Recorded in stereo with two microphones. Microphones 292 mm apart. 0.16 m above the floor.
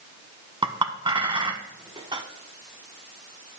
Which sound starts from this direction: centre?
A clink, at 0.6 s.